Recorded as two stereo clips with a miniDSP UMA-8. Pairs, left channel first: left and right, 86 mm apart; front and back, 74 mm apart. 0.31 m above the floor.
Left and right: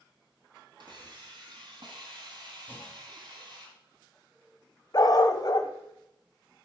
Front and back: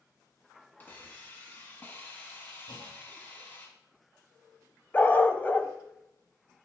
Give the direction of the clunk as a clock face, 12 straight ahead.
11 o'clock.